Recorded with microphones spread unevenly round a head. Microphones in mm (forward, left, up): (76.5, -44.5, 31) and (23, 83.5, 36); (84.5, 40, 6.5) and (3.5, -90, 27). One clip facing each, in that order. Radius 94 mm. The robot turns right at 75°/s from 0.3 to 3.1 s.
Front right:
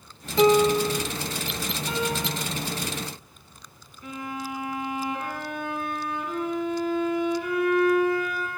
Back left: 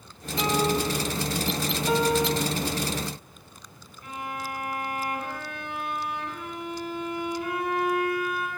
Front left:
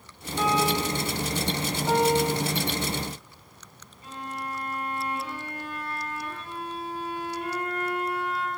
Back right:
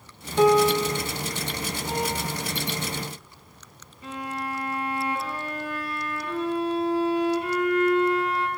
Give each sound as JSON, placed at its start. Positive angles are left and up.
{"t": 0.4, "sound": "a piano", "azimuth_deg": -100, "distance_m": 3.5}
{"t": 1.9, "sound": "a piano", "azimuth_deg": 105, "distance_m": 6.5}
{"t": 4.0, "sound": "a violin", "azimuth_deg": -100, "distance_m": 8.5}